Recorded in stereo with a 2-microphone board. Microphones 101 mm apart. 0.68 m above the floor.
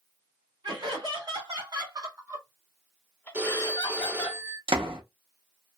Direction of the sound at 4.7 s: 75° right (ahead or behind).